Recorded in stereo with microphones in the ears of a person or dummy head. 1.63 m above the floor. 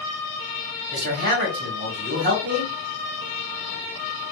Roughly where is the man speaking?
Right.